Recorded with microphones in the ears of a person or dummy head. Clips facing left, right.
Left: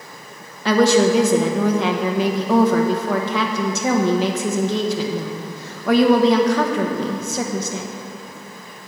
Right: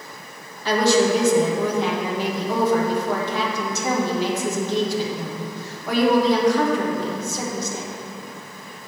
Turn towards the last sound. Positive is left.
turn(degrees=60)  # may be behind; listen again after turning